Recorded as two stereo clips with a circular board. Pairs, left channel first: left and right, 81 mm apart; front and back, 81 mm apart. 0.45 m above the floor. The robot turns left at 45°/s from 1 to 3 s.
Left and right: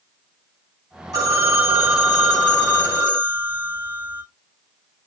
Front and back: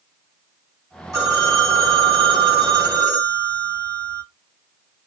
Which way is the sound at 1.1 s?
135° right.